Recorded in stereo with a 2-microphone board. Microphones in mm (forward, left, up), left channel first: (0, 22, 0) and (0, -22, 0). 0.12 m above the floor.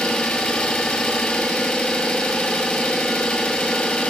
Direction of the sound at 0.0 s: 25° left (ahead or behind).